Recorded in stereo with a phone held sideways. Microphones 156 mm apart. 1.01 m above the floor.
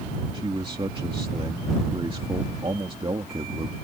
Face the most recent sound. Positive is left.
turn(degrees=-35)  # may be behind; listen again after turning